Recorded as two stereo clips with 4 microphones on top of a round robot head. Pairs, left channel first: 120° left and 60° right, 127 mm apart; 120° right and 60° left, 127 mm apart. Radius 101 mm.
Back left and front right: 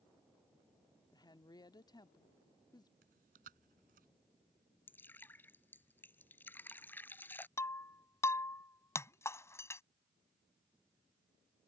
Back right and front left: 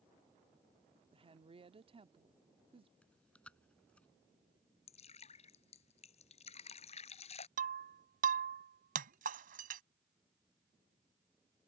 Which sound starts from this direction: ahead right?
Chewing, at 3.0 s.